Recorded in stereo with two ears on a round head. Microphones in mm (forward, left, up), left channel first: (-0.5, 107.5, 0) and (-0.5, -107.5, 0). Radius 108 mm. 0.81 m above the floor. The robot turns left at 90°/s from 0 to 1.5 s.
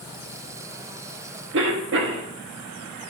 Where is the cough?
55° right (ahead or behind), 1.3 m.